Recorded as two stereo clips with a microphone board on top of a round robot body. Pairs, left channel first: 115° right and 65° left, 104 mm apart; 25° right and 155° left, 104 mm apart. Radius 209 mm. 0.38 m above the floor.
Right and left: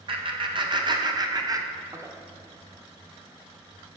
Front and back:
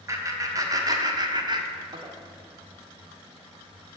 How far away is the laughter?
About 2 m.